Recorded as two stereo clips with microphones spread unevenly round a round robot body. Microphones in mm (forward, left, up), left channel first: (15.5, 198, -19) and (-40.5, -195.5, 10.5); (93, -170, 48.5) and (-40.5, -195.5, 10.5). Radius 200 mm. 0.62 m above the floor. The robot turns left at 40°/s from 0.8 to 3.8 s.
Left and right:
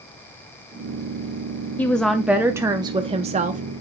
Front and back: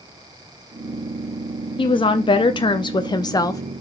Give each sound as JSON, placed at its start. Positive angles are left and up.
{"t": 1.8, "sound": "a woman speaking", "azimuth_deg": 15, "distance_m": 0.5}